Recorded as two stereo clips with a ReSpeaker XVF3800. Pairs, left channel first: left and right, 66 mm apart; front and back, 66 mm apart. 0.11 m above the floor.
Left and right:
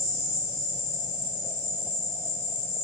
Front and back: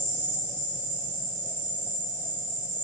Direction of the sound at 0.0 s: 130° left.